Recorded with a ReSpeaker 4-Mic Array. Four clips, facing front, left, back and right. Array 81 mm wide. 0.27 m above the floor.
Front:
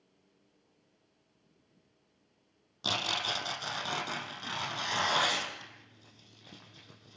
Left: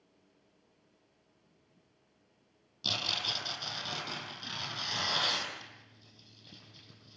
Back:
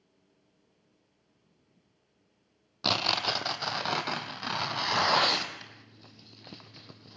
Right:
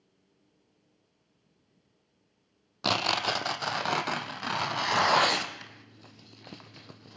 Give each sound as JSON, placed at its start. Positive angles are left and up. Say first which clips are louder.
{"t": 2.8, "sound": "tearing paper", "louder": "right 11 dB, back 5 dB", "azimuth_deg": -120, "distance_m": 1.6}